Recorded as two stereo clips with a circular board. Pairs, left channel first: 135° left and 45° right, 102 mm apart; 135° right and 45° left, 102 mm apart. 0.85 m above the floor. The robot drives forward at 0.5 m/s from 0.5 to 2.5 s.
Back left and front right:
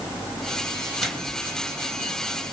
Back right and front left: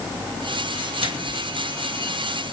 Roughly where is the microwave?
Ahead left.